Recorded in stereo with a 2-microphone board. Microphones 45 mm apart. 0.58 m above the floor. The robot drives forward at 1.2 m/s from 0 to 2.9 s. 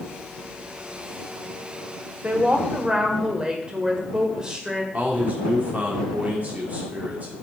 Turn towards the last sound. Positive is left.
turn(degrees=-35)  # may be behind; listen again after turning